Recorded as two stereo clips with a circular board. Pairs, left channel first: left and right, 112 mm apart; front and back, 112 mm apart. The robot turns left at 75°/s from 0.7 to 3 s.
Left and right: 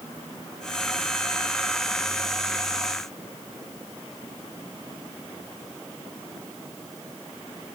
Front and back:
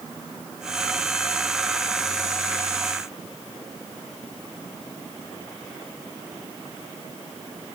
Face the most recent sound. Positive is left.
No sound to turn to.